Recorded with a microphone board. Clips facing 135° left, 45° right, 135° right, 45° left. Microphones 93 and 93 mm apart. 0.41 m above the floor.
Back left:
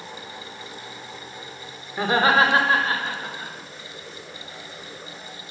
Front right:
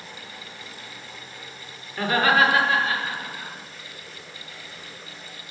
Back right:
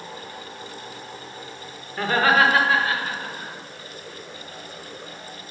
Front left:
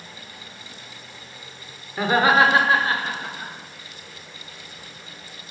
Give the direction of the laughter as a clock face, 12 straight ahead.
8 o'clock.